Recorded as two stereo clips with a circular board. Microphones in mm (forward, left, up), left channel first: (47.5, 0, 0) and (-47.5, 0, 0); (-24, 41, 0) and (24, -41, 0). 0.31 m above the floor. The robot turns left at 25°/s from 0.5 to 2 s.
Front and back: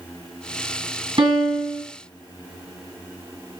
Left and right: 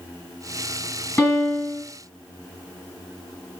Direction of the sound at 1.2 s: 170° right.